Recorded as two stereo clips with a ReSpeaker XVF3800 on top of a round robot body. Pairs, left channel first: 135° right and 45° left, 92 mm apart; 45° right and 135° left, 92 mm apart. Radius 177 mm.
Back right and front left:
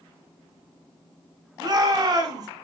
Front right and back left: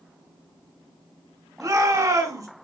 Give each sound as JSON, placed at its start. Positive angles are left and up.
{"t": 1.6, "sound": "a shout", "azimuth_deg": 85, "distance_m": 2.5}